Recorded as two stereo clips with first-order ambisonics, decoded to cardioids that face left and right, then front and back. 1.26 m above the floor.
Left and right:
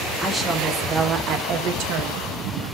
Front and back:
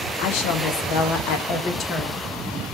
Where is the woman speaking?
5° right, 1.8 m; by 2.8 s 95° right, 1.5 m.